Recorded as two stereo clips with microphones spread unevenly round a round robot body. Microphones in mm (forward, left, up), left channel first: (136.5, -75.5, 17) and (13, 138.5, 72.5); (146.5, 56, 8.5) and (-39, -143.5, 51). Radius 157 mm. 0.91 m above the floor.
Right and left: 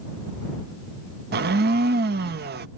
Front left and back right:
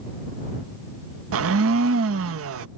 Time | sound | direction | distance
1.3 | a blender | straight behind | ?